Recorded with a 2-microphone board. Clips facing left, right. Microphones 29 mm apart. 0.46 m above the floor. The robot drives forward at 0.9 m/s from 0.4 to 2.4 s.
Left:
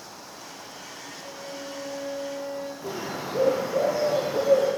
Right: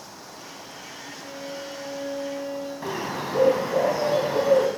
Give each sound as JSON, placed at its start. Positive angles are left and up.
{"t": 1.2, "sound": "a violin", "side_deg": -75, "distance_m": 7.5}
{"t": 2.8, "sound": "a bird", "side_deg": -70, "distance_m": 3.0}